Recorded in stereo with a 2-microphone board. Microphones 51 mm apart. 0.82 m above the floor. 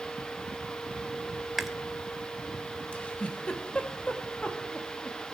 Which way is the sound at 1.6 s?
5° right (ahead or behind).